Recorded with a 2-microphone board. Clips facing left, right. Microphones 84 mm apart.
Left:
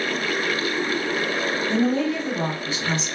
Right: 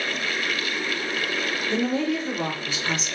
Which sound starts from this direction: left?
A woman speaking, at 1.7 s.